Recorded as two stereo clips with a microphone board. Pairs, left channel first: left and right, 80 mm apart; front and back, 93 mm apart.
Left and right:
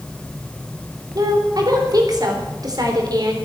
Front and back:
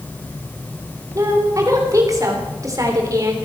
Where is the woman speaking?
130° right, 3.5 m.